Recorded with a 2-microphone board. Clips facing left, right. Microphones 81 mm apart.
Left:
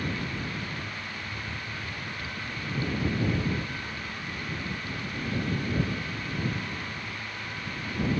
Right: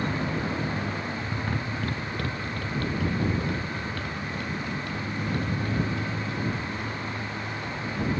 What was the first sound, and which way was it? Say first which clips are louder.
A motorcycle: right 5 dB; 55° right (ahead or behind).